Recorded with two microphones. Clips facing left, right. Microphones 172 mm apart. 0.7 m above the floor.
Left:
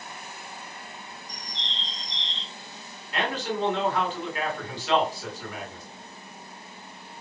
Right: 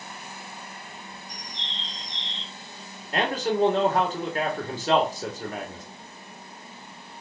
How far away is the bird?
About 2.5 m.